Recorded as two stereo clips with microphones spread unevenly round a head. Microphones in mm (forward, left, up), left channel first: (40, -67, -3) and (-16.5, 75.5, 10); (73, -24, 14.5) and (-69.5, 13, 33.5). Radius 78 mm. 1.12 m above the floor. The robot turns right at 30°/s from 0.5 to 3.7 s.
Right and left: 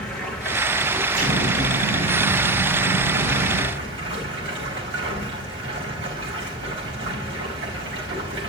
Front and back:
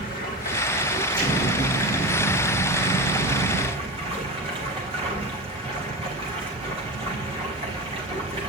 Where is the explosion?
70° left, 6 m; by 3.7 s 145° left, 6 m.